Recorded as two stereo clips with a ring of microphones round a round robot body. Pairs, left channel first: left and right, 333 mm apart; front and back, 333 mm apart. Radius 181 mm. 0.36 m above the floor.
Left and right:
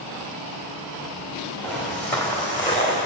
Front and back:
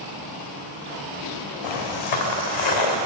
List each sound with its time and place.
1.6 s footsteps: straight ahead, 1.8 m; by 3.1 s 15° left, 2.5 m